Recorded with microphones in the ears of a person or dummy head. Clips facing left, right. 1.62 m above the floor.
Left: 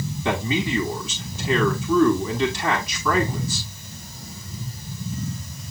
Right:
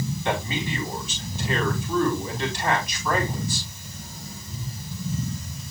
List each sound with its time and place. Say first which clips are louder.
0.2 s a man speaking: left 5 dB; 80° left, 4.5 m